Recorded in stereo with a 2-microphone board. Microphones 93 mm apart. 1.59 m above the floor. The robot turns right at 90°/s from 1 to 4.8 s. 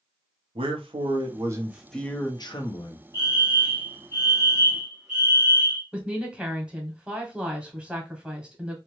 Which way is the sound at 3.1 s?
45° left.